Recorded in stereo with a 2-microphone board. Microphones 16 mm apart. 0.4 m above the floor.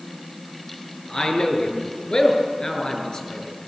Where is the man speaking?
50° left (ahead or behind), 6 m.